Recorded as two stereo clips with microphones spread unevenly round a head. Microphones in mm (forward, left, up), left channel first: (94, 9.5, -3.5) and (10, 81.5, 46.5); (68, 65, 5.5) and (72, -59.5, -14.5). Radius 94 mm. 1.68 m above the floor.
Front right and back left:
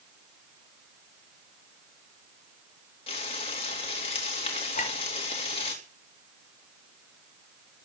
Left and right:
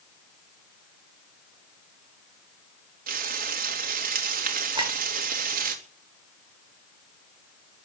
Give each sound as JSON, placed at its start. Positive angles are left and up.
{"t": 3.1, "sound": "frying", "azimuth_deg": -90, "distance_m": 3.0}
{"t": 4.8, "sound": "a clink", "azimuth_deg": -35, "distance_m": 5.0}